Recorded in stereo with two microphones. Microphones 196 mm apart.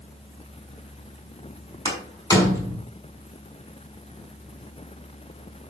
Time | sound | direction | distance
1.9 | a door slam | 15° left (ahead or behind) | 5.5 m